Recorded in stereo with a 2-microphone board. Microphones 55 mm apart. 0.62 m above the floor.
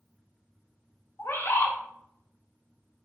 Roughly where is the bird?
Left.